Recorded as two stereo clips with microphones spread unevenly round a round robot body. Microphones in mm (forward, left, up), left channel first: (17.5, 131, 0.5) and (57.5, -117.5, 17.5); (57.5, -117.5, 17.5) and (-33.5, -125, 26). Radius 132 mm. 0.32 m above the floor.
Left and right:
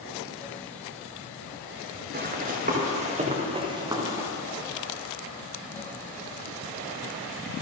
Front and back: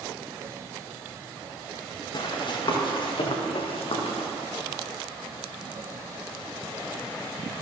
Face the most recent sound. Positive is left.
turn(degrees=0)